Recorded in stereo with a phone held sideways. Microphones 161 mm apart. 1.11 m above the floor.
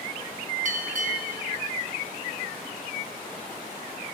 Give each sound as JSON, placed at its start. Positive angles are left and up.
{"t": 0.7, "sound": "a bell", "side_deg": -50, "distance_m": 3.5}